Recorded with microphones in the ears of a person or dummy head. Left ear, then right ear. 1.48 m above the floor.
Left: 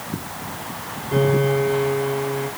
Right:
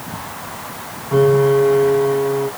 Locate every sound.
1.1 s a piano: 55° right (ahead or behind), 3 m